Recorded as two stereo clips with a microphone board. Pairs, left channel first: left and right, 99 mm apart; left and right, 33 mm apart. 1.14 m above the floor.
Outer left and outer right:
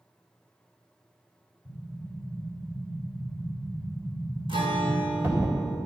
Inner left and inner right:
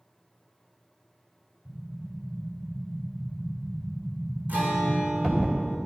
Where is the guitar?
70° right (ahead or behind), 4 m.